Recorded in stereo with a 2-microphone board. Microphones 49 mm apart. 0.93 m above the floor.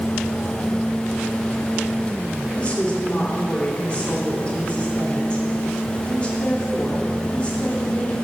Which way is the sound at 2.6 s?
25° left (ahead or behind).